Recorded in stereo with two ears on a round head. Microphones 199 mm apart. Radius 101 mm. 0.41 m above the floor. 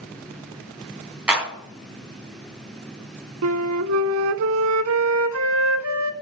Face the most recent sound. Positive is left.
turn(degrees=-65)  # may be behind; listen again after turning